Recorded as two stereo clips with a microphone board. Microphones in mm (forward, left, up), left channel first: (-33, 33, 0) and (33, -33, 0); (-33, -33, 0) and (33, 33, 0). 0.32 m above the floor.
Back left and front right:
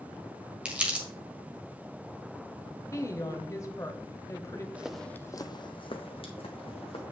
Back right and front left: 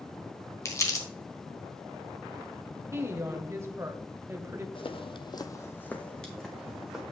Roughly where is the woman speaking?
Left.